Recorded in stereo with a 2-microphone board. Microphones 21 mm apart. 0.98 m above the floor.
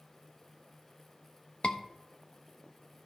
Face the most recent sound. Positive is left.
turn(degrees=60)  # may be behind; listen again after turning